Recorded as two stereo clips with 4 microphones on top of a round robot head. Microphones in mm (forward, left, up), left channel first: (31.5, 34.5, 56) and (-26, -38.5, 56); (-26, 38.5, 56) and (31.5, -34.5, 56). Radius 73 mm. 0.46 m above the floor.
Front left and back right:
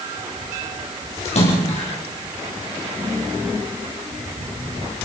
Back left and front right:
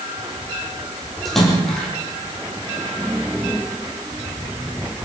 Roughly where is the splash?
Ahead left.